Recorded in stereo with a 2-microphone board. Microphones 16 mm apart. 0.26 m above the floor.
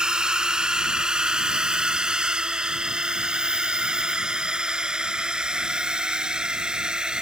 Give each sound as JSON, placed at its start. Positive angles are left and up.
{"t": 0.0, "sound": "a drone", "side_deg": -55}